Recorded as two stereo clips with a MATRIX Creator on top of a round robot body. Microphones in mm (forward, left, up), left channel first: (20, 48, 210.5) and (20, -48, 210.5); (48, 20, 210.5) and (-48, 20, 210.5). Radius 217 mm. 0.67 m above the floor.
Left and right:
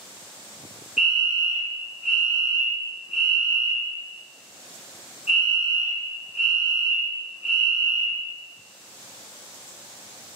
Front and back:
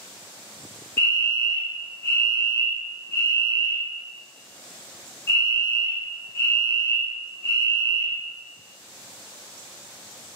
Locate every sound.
1.0 s a fire alarm: 15° right, 1.7 m